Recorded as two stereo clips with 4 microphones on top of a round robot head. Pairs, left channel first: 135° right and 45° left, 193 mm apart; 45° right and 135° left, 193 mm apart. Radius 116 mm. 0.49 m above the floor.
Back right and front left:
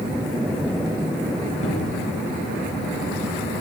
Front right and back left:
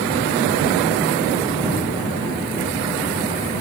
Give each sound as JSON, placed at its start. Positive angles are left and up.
{"t": 1.6, "sound": "a cupboard door", "azimuth_deg": -155, "distance_m": 4.0}